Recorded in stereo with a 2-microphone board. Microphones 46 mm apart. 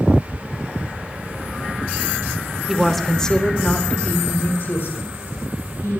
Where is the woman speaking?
10° right (ahead or behind), 1.5 m; by 6.0 s 70° left (ahead or behind), 3.5 m.